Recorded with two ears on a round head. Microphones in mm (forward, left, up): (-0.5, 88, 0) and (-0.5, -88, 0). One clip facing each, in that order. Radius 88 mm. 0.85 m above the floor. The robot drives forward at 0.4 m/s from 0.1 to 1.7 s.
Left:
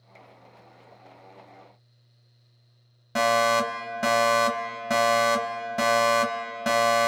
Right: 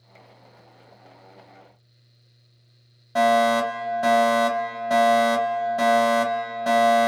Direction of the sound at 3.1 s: 30° left (ahead or behind).